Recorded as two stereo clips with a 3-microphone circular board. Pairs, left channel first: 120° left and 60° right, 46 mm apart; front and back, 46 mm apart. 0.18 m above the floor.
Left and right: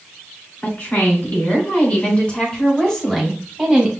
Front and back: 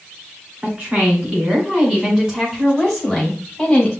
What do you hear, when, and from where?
0.6 s a woman speaking: 135° left, 2 m; by 3.9 s 25° left, 1.5 m